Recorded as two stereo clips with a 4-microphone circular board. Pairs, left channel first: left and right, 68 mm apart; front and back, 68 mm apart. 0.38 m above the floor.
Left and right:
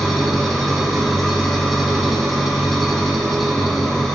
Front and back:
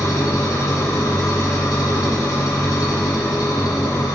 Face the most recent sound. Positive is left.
turn(degrees=0)